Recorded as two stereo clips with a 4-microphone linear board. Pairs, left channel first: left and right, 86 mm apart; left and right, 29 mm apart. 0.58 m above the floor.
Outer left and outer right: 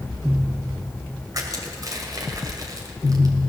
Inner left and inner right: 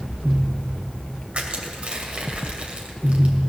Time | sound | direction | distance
1.3 | crushing | 45° right (ahead or behind) | 2 m